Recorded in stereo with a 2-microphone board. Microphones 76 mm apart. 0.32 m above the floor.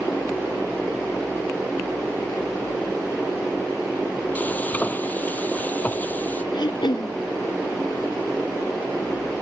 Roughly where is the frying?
Left.